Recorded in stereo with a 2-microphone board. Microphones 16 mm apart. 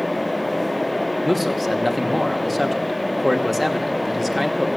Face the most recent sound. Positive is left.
turn(degrees=5)  # may be behind; listen again after turning